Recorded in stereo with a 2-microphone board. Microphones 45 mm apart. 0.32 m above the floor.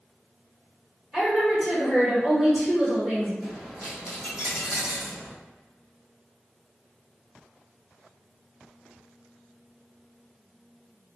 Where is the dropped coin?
15° right (ahead or behind), 1.0 m.